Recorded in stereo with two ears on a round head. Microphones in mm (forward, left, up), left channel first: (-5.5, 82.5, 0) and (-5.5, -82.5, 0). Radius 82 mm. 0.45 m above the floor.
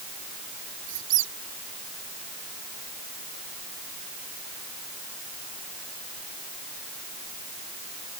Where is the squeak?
75° right (ahead or behind).